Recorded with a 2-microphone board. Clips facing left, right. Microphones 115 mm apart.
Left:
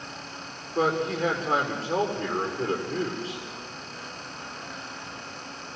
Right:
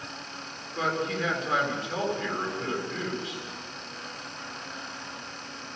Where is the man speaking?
30° left (ahead or behind), 8.5 m.